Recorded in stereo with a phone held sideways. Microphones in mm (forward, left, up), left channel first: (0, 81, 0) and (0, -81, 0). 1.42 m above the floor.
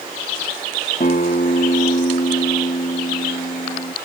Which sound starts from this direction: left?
A guitar, at 1.0 s.